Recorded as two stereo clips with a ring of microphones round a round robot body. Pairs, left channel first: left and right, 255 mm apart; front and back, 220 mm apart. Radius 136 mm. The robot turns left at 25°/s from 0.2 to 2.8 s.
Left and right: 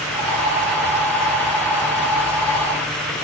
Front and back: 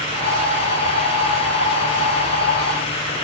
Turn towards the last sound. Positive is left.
No sound to turn to.